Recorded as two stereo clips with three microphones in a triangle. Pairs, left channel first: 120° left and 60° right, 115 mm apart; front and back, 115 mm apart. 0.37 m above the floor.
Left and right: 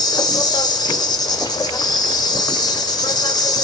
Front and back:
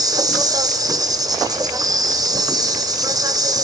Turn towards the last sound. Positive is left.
turn(degrees=145)